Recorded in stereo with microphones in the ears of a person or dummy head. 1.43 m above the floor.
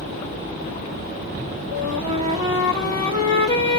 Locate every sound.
1.7 s a flute: 35° right (ahead or behind), 1.4 m